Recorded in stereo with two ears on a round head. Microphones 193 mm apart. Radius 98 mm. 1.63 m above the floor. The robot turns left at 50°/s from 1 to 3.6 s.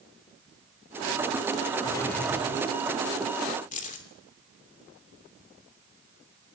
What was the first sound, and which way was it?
A drawer, 25° left.